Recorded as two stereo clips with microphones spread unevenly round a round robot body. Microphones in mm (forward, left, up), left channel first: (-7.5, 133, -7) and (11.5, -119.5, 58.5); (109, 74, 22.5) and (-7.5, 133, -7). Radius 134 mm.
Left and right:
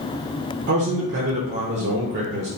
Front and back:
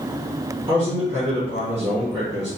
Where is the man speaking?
140° right, 0.6 m.